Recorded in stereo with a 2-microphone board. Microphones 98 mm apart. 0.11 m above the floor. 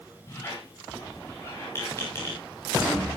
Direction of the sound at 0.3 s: 30° left (ahead or behind).